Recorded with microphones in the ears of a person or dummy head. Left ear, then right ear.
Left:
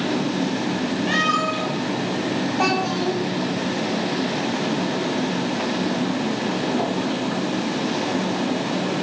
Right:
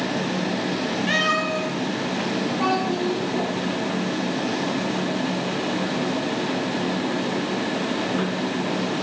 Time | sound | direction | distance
1.1 | a cat meowing | 10° right (ahead or behind) | 1.3 m
2.6 | a child speaking | 75° left (ahead or behind) | 3.5 m